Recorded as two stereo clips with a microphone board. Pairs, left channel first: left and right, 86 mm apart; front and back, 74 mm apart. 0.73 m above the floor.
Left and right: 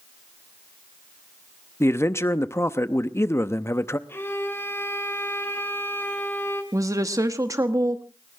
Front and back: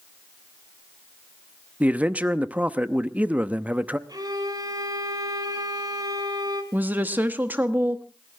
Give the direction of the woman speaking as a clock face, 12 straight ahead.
4 o'clock.